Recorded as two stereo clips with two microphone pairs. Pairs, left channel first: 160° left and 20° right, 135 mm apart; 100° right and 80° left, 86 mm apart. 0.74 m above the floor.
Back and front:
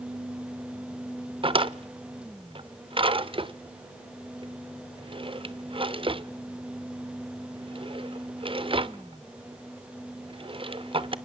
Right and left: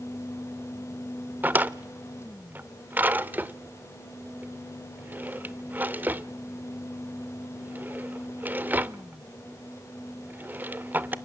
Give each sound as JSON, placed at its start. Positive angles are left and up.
{"t": 1.4, "sound": "a drawer", "azimuth_deg": 20, "distance_m": 0.5}